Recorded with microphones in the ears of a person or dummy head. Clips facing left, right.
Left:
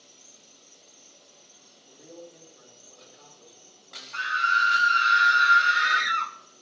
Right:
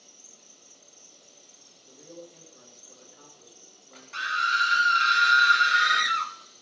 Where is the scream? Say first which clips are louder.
Left 2 dB; 45° right (ahead or behind), 0.9 m.